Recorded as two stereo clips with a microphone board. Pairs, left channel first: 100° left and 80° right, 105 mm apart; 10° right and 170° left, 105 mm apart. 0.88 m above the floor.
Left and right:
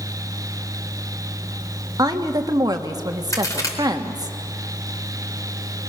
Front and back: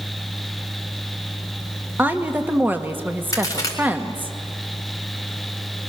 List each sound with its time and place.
2.0 s a woman speaking: 120° right, 1.6 m
3.3 s a crack: 45° left, 3.5 m